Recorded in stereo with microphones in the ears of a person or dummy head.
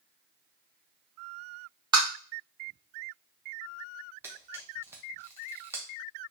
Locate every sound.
1.9 s tapping: 25° right (ahead or behind), 0.8 m
4.2 s a camera shutter: 15° right (ahead or behind), 0.7 m